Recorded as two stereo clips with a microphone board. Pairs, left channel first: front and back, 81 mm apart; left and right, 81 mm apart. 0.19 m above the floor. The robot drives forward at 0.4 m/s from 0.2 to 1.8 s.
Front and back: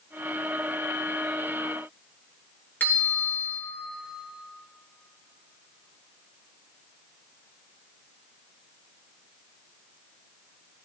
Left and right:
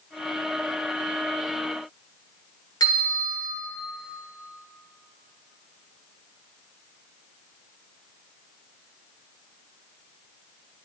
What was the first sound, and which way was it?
A bell, 65° left.